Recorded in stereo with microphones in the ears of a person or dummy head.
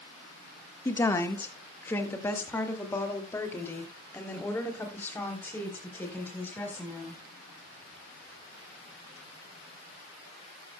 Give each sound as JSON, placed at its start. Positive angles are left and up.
{"t": 0.8, "sound": "a woman speaking", "side_deg": 10, "distance_m": 1.6}